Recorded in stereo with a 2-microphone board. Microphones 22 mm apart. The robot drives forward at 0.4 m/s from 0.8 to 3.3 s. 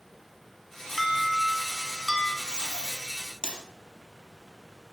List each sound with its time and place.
1.0 s an alarm: 10° right (ahead or behind), 2.5 m
2.5 s tape being pulled: 40° right (ahead or behind), 4.5 m